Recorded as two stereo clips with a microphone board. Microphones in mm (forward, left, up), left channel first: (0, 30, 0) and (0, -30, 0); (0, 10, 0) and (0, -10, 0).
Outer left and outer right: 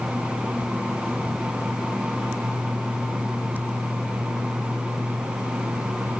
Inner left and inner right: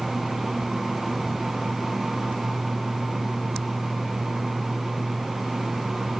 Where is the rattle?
No rattle in this recording.